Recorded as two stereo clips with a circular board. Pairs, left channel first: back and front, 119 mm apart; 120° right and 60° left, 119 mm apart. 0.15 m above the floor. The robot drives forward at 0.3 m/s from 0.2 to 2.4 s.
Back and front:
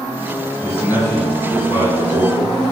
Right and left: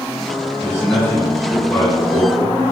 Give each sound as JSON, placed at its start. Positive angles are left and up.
{"t": 0.6, "sound": "a man speaking", "azimuth_deg": -145, "distance_m": 1.0}